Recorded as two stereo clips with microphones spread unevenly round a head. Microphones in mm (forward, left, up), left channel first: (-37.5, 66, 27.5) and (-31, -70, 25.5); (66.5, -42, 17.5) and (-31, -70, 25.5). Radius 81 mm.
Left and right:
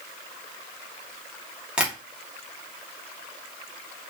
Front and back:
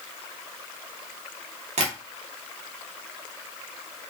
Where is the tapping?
170° right, 2.5 m.